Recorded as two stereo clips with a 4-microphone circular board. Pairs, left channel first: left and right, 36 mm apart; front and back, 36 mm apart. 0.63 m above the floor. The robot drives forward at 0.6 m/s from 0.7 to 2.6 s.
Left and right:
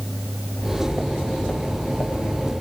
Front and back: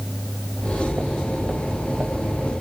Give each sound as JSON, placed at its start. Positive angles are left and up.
{"t": 0.5, "sound": "footsteps", "azimuth_deg": 115, "distance_m": 5.0}